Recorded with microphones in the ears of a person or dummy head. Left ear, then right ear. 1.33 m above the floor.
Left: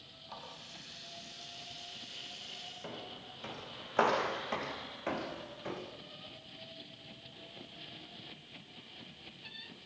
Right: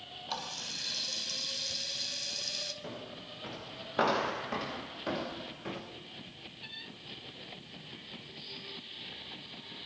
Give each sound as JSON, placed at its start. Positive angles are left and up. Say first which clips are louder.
{"t": 0.3, "sound": "a running tap", "louder": "right 11 dB", "side_deg": -55, "distance_m": 5.0}
{"t": 2.8, "sound": "footsteps", "louder": "right 2 dB", "side_deg": 30, "distance_m": 7.5}